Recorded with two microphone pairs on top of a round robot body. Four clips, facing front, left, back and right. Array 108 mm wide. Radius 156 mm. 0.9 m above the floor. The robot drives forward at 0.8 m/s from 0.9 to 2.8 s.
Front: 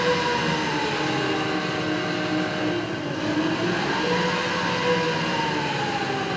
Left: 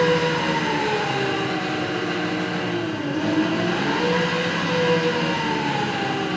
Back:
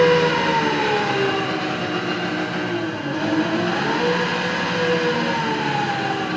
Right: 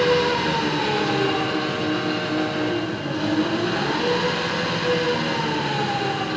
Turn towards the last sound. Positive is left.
turn(degrees=180)